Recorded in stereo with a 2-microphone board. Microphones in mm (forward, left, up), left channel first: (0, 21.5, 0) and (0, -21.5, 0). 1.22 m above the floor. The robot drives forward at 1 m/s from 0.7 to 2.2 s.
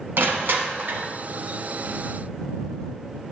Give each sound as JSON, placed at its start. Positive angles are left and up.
{"t": 0.2, "sound": "crushing", "side_deg": -55, "distance_m": 1.0}